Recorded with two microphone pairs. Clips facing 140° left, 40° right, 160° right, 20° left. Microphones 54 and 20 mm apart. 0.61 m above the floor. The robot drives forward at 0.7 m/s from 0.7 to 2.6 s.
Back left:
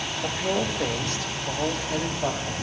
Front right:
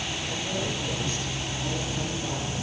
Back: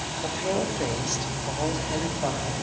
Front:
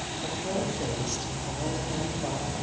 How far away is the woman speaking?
About 2.5 m.